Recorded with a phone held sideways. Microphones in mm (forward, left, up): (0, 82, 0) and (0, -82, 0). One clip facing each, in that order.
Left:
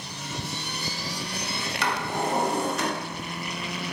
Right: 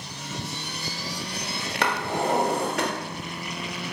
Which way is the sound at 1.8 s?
65° right (ahead or behind).